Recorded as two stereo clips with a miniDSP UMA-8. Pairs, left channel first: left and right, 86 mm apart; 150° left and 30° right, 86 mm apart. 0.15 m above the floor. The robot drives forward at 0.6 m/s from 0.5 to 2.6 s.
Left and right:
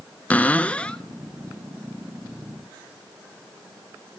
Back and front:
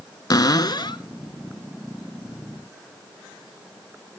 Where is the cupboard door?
155° left, 0.5 m; by 1.0 s 165° left, 0.8 m.